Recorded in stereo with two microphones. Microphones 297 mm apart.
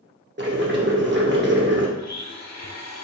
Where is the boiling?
40° right (ahead or behind), 0.8 m.